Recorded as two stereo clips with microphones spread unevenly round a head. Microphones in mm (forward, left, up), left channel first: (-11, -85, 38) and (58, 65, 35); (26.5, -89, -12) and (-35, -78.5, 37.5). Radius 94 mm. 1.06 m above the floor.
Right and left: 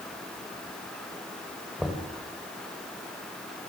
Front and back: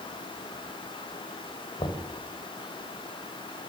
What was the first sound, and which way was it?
Knocking, 20° right.